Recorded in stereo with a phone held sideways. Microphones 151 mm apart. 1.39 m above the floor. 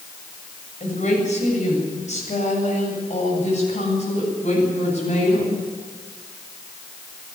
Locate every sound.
0.8 s a woman speaking: 50° left (ahead or behind), 7.5 m